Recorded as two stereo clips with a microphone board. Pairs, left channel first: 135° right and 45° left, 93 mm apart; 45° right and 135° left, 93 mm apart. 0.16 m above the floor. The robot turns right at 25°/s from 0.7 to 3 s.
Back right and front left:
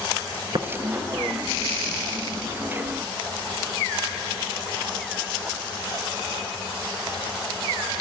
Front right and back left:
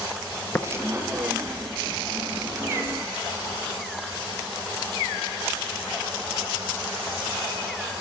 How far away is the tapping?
About 1.1 m.